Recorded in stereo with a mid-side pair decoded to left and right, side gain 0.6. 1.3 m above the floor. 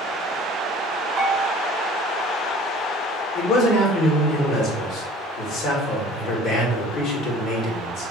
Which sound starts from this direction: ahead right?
A bell, at 1.2 s.